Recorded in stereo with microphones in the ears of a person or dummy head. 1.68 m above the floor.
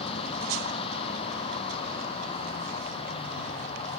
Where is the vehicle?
35° left (ahead or behind).